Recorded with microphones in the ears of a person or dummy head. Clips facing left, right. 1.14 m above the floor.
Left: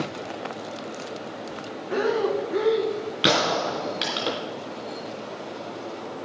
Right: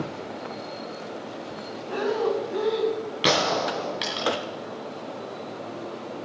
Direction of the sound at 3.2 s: 15° left (ahead or behind).